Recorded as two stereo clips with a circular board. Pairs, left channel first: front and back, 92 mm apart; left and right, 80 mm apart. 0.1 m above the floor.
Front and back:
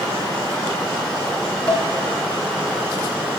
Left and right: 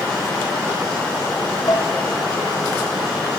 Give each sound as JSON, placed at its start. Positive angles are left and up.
{"t": 1.7, "sound": "dishes clattering", "azimuth_deg": 70, "distance_m": 6.5}